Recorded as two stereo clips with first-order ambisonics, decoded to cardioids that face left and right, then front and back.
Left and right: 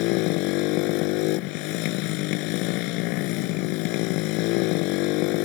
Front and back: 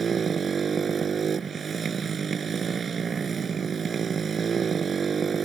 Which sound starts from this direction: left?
A motorcycle, at 0.0 s.